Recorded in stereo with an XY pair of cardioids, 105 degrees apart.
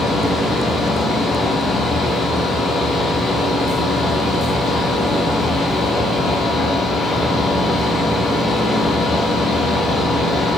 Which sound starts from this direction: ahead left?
A fan, at 0.0 s.